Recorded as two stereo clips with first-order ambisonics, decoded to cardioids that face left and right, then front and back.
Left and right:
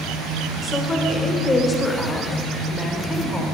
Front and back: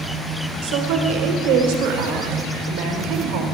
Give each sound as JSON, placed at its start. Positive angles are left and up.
{"t": 0.6, "sound": "a woman speaking", "azimuth_deg": 170, "distance_m": 2.0}